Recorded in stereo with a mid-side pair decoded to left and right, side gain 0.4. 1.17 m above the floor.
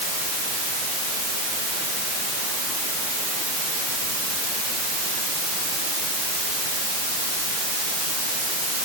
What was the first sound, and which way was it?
Only background noise.